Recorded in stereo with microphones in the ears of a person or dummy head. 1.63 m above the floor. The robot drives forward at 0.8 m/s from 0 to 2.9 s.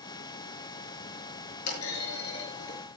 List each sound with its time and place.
1.7 s a clunk: 75° left (ahead or behind), 7.5 m; by 2.8 s 70° left (ahead or behind), 8 m